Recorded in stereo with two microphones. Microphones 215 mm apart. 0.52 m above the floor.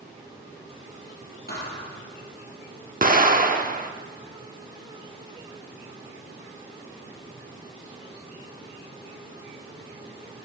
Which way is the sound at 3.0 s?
40° right (ahead or behind).